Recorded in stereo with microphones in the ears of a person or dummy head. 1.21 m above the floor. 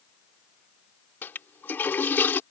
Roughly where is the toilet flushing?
Centre.